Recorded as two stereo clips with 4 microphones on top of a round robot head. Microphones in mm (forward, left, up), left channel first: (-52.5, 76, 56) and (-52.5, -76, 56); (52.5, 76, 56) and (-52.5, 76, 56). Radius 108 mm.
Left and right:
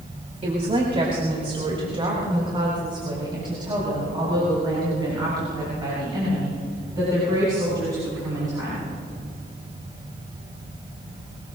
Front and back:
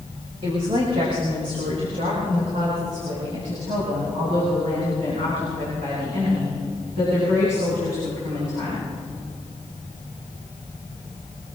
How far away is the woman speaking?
About 3 m.